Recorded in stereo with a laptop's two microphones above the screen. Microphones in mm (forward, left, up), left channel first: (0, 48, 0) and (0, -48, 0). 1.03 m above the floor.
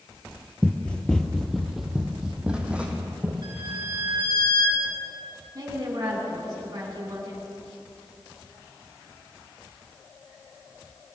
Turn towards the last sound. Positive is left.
turn(degrees=-40)  # may be behind; listen again after turning